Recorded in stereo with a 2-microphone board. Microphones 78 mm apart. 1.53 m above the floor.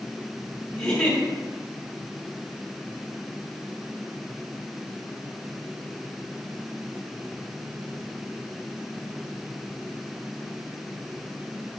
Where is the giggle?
15° left (ahead or behind), 1.2 m.